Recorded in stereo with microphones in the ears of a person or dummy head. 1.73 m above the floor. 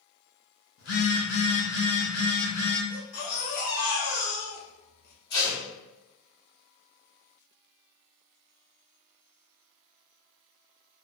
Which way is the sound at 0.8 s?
55° left (ahead or behind).